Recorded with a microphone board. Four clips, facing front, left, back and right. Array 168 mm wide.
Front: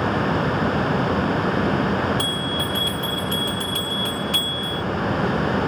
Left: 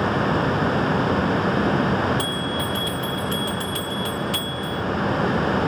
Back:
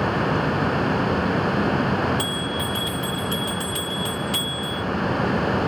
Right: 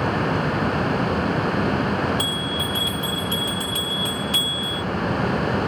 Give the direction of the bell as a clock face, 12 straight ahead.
1 o'clock.